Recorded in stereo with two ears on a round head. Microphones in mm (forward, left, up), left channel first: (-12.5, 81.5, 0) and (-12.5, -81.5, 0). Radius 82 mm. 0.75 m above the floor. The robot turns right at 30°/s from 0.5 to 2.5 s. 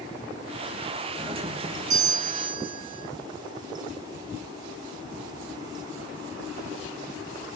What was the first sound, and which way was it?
A doorbell, 145° right.